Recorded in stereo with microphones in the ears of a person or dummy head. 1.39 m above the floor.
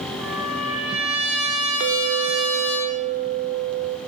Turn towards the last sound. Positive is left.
turn(degrees=-50)  # may be behind; listen again after turning